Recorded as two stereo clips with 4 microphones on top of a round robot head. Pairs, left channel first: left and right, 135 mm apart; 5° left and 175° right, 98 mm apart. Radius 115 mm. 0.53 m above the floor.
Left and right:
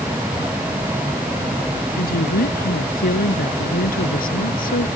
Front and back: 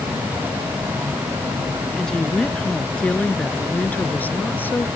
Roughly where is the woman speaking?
Left.